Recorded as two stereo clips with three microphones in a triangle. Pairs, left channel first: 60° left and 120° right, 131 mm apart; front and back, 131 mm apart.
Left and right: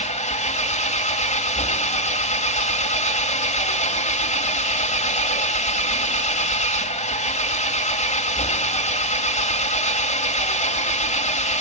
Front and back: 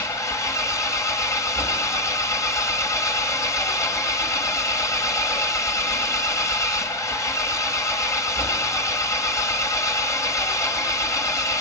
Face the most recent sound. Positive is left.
turn(degrees=65)